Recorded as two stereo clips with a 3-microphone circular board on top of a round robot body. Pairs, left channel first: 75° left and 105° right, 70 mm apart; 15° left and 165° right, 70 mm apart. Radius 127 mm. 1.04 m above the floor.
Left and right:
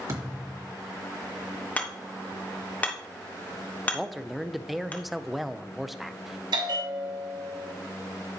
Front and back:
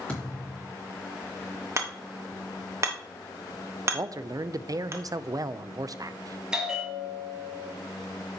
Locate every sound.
0.1 s a thud: 60° right, 2.5 m
1.8 s hammering: 145° left, 1.1 m
3.9 s a man speaking: 165° left, 0.5 m
6.5 s a bell: 80° right, 1.3 m